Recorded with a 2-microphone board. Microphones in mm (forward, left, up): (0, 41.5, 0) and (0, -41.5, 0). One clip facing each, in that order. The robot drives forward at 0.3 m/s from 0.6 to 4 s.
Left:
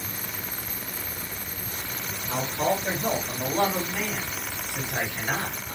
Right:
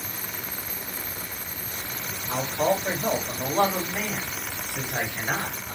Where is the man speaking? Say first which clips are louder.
Right 2 dB; 20° right (ahead or behind), 1.4 m; by 5.8 s 15° right (ahead or behind), 1.7 m.